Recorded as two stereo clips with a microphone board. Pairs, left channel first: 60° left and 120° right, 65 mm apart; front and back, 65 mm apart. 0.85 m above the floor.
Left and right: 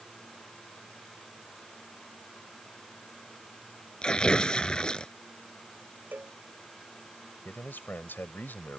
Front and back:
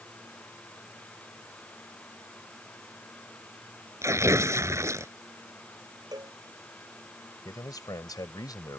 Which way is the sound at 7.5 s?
Straight ahead.